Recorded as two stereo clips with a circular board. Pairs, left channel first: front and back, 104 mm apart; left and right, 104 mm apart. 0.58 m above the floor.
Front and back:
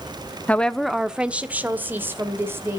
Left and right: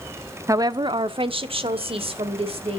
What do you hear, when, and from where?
0.5 s a woman speaking: 60° right, 0.7 m; by 2.8 s 115° right, 2.5 m